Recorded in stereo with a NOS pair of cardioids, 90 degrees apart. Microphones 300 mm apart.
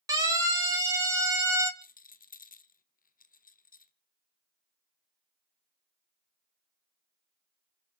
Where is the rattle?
30° left, 1.3 m.